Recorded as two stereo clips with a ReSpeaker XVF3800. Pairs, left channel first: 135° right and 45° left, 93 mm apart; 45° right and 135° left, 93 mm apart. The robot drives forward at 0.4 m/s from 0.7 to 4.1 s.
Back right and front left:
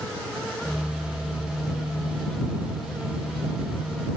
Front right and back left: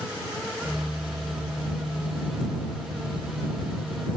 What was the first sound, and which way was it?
Only background noise.